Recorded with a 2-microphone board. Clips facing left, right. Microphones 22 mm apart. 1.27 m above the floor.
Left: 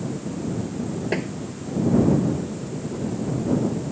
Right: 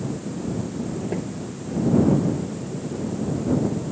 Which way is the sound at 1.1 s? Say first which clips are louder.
Left 5 dB; 60° left (ahead or behind).